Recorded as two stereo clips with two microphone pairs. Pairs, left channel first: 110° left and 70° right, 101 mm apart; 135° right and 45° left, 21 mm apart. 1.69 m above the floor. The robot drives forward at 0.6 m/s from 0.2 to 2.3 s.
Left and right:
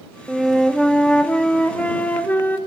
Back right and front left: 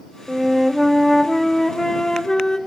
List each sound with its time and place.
0.3 s a flute: 10° left, 1.2 m; by 2.6 s 175° left, 1.4 m